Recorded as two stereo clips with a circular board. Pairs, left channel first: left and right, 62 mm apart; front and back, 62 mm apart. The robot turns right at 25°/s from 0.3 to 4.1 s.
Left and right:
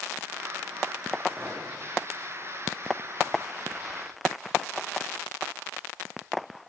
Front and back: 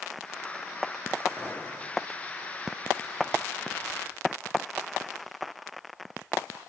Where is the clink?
170° right, 1.5 m; by 1.6 s 165° right, 1.5 m.